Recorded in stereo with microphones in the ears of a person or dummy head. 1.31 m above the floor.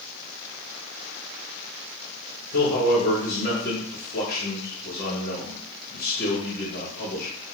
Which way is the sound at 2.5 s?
60° left (ahead or behind).